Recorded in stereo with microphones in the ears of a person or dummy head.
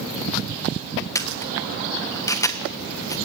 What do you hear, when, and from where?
1.1 s a camera shutter: 15° left (ahead or behind), 1.3 m